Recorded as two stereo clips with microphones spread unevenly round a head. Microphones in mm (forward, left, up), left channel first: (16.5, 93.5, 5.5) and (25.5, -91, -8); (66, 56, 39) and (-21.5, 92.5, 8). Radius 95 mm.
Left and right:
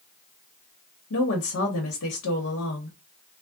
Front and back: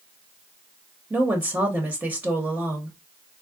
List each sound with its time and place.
1.1 s a woman speaking: 85° left, 0.9 m